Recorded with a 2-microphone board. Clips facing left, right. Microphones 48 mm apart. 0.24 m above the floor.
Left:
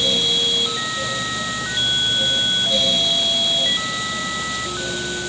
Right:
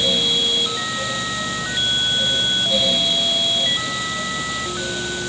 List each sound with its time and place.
Only background noise.